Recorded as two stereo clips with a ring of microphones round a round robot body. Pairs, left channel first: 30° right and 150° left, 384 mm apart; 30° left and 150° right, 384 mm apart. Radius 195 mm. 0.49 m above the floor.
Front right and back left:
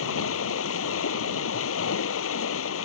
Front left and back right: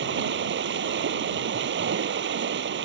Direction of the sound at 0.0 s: 85° right.